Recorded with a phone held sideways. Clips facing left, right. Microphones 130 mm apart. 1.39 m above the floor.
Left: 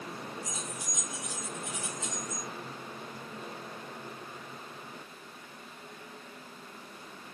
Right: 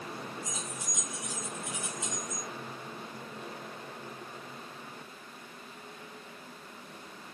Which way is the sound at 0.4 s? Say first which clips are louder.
Even; 25° right (ahead or behind).